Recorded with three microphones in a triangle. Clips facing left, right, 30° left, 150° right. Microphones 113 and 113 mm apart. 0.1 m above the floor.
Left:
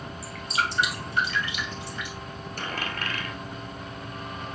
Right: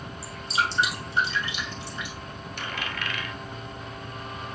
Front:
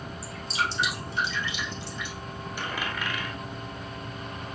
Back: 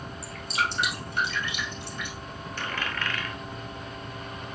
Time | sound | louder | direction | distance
0.2 | dripping | right 1 dB, back 1 dB | 155° right | 2 m
2.6 | a dropped coin | left 1 dB, even | 100° left | 0.9 m